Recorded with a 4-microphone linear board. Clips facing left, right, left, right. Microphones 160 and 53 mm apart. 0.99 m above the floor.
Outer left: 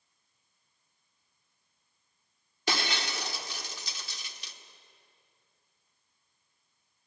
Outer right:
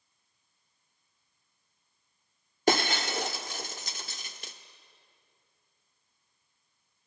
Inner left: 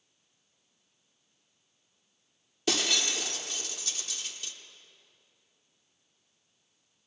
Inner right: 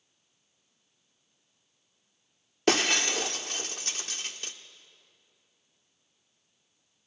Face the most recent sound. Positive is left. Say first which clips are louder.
# outer right 7 dB, inner right 5 dB
turn(degrees=-45)  # may be behind; listen again after turning